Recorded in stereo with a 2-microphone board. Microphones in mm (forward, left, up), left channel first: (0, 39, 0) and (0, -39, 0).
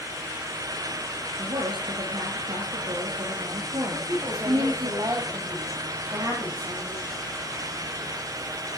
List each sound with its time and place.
1.4 s a woman speaking: 75° right (ahead or behind), 4 m
3.9 s a woman speaking: 45° right (ahead or behind), 9 m